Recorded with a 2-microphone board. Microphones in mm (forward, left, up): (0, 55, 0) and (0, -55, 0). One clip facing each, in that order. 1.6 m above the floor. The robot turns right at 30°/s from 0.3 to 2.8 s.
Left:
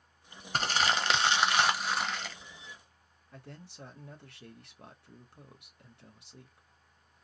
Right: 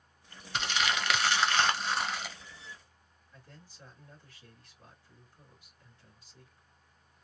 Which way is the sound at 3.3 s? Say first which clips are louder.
Left 7 dB; 70° left (ahead or behind).